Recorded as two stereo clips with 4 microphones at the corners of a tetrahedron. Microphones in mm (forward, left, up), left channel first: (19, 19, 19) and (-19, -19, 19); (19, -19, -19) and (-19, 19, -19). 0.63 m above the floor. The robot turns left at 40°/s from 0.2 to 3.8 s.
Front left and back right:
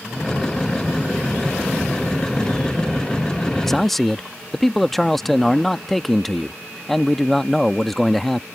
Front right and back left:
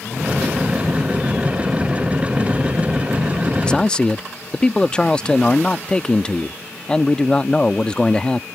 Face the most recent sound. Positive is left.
turn(degrees=-35)